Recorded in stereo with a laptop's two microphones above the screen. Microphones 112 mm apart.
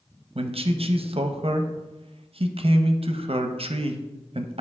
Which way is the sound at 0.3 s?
60° right (ahead or behind).